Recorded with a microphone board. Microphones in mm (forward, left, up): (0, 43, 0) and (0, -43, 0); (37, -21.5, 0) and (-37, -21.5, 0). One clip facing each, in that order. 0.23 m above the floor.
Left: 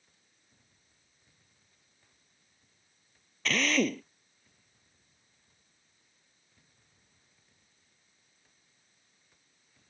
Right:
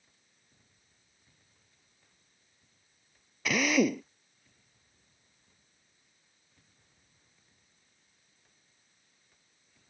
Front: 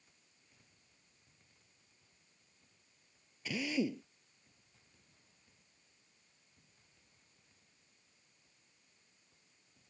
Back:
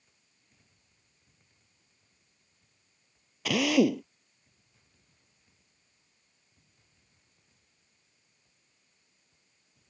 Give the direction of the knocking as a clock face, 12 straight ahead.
No knocking in this recording.